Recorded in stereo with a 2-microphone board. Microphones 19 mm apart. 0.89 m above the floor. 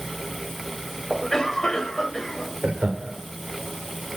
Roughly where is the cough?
Left.